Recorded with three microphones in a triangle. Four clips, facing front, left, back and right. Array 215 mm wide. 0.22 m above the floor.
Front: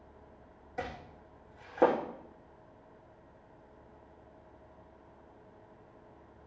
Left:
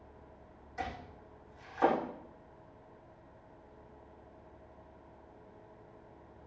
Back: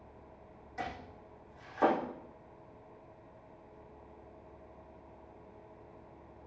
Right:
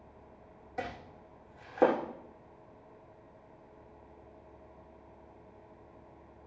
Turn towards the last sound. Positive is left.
turn(degrees=-60)